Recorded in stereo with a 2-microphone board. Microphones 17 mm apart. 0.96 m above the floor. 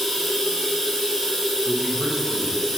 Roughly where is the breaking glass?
I don't hear breaking glass.